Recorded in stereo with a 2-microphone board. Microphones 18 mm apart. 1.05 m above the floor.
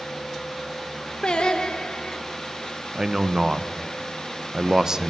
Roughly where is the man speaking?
Right.